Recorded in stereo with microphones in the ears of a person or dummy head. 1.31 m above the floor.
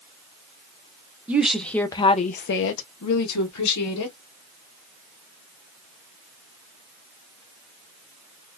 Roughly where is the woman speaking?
Centre.